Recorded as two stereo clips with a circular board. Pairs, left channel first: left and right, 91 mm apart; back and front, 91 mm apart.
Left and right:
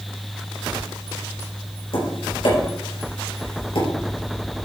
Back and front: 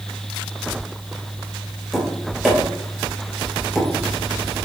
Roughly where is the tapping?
Left.